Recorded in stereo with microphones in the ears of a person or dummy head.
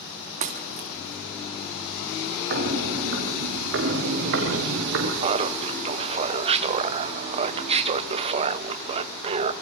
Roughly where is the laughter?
Right.